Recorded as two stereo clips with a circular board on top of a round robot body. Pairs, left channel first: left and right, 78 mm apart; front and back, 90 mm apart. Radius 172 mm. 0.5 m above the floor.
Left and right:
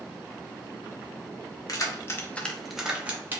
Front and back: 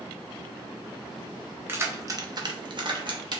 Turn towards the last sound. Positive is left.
turn(degrees=-150)